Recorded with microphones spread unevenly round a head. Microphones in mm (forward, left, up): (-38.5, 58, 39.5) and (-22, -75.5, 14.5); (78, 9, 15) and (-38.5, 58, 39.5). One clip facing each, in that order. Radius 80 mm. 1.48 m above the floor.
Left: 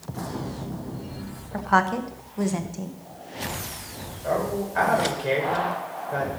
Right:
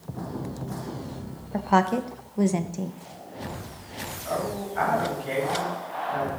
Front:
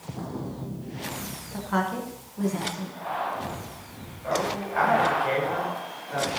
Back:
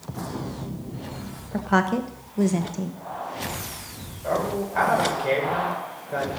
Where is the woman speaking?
150° right, 1.1 m.